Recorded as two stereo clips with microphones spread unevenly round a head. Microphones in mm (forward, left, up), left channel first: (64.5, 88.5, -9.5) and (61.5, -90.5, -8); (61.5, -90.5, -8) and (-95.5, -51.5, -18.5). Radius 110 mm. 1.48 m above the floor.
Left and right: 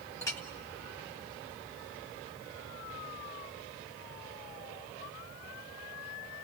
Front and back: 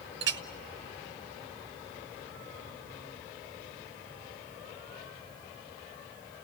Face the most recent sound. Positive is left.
turn(degrees=165)